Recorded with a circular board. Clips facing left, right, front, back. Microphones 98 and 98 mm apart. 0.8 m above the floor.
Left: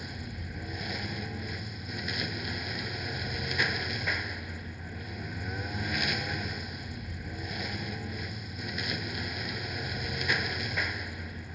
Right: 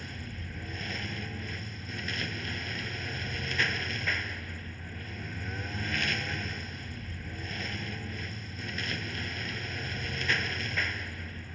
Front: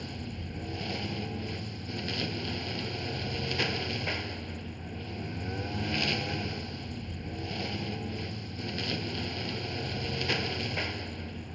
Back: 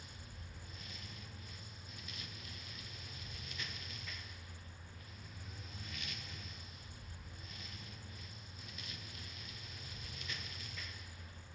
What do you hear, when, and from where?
0.0 s a lawn mower: 15° left